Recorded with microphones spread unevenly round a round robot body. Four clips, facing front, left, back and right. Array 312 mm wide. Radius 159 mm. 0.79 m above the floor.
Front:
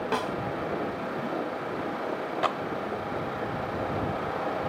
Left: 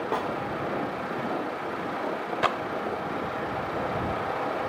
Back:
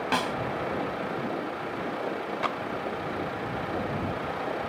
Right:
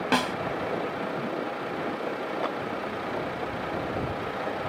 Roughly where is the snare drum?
Behind right.